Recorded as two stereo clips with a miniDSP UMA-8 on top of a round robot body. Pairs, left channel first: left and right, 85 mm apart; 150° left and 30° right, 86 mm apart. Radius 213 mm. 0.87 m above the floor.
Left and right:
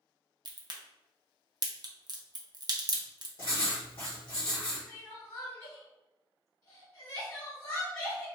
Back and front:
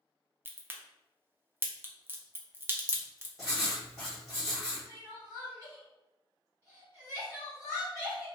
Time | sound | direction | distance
0.5 | a crack | 90° right | 0.8 m
3.4 | writing | 55° left | 0.8 m
4.9 | crying | 35° left | 0.9 m